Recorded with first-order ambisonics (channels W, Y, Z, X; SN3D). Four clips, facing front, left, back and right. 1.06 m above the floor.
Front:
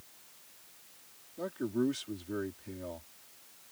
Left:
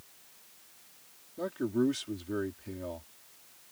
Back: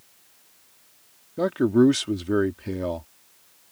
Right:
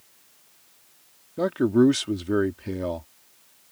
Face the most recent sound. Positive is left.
turn(degrees=-140)